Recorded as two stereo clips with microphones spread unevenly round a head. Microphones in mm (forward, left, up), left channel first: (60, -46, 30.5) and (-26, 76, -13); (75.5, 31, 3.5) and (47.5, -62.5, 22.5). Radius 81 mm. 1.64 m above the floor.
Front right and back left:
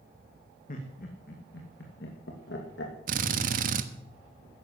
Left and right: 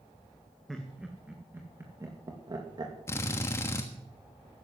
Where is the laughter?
20° right, 2.5 m; by 2.9 s 70° right, 2.5 m.